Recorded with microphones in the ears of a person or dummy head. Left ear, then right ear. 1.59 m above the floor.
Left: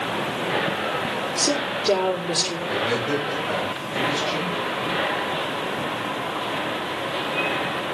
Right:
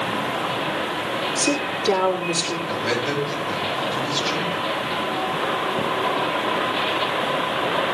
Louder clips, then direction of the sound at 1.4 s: Left 2 dB; 30° right (ahead or behind).